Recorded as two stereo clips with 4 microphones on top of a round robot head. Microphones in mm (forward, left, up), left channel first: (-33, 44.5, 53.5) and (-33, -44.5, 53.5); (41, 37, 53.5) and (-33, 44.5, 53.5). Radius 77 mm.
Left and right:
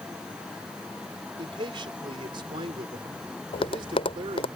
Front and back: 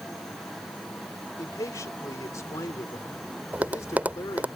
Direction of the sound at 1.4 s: 55° right.